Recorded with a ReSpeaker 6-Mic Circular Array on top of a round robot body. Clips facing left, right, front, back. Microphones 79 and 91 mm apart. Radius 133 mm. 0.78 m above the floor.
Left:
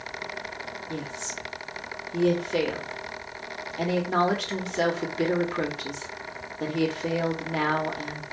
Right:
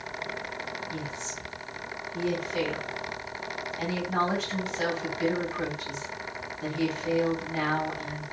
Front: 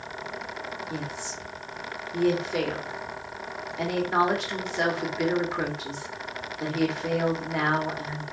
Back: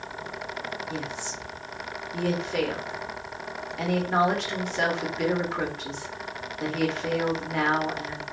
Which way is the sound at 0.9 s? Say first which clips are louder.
Left 2 dB, back 1 dB; 85° left.